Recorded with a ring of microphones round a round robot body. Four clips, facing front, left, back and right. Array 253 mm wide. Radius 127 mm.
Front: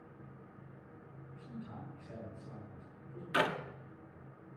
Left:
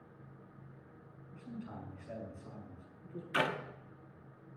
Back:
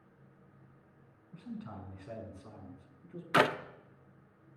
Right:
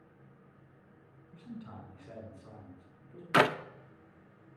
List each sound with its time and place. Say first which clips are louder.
1.3 s a man speaking: even, back 4 dB; 170° right, 6 m; by 3.2 s straight behind, 6.5 m
3.3 s a clap: right 8 dB, back 5 dB; 120° right, 0.7 m